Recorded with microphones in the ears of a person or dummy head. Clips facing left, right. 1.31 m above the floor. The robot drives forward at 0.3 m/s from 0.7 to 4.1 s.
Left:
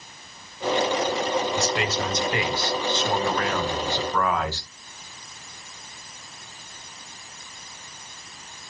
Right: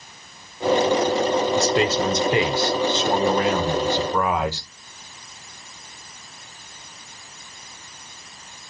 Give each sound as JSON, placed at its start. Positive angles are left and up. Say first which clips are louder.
{"t": 1.6, "sound": "a man speaking", "louder": "right 6 dB", "side_deg": -30, "distance_m": 0.9}